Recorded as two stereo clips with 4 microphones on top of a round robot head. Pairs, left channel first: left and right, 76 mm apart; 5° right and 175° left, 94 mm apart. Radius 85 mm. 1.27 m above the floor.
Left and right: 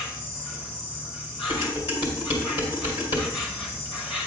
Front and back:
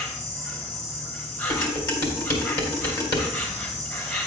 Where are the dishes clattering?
45° left, 2.5 m.